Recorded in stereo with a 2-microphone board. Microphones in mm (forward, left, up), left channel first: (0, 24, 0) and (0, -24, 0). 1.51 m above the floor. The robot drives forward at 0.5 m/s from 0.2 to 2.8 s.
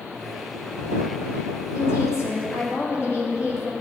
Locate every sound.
1.8 s a woman speaking: 70° left (ahead or behind), 2.5 m; by 3.7 s 60° left (ahead or behind), 3 m